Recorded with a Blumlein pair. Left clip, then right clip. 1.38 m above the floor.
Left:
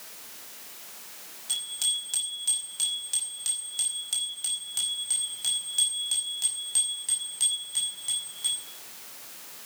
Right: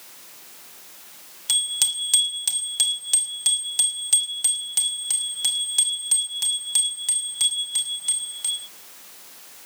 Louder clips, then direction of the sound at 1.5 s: Right 6 dB; 55° right.